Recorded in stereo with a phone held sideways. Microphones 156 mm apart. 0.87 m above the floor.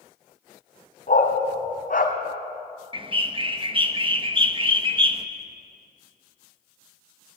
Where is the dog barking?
60° left (ahead or behind), 2.5 m.